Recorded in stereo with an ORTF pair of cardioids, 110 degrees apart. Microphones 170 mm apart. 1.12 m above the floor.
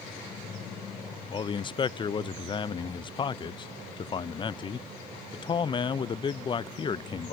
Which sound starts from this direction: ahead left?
A man speaking, at 1.3 s.